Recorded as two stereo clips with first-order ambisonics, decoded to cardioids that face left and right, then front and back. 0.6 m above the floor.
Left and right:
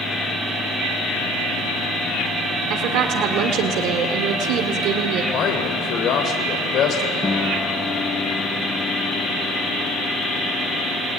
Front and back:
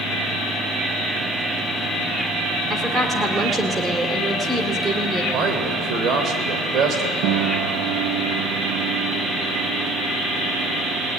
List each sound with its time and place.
2.7 s a woman speaking: 105° right, 1.7 m
5.3 s a man speaking: 135° left, 2.5 m
7.2 s a piano: 165° left, 1.4 m